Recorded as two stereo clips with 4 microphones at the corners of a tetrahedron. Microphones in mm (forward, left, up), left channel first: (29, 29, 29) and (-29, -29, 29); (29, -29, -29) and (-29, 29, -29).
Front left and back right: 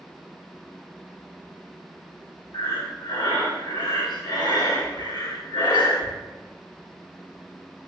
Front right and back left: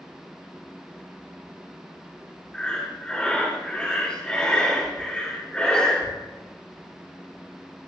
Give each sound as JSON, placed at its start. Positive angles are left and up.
{"t": 2.5, "sound": "breathing", "azimuth_deg": 30, "distance_m": 1.8}